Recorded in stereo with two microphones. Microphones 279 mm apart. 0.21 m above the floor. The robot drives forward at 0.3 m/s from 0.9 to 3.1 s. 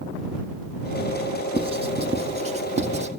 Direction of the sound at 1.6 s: 20° right (ahead or behind).